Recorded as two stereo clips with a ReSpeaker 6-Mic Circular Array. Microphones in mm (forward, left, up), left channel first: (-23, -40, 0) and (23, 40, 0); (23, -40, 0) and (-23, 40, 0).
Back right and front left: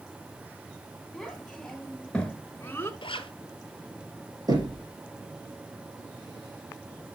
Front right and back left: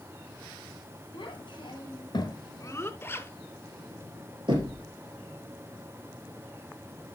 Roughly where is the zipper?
Behind right.